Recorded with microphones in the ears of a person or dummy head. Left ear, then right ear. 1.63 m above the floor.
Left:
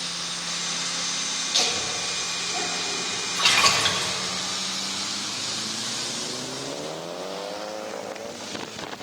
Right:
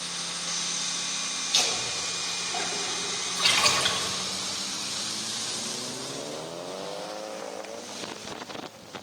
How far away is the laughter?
About 3.5 m.